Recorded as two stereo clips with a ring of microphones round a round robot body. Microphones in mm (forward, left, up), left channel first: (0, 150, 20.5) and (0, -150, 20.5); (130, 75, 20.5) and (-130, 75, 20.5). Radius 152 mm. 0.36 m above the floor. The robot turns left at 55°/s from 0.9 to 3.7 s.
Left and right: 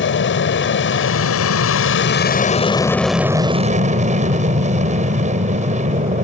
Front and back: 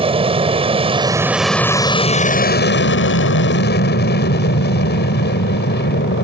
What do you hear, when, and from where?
0.0 s an aircraft: 120° left; by 6.2 s 35° right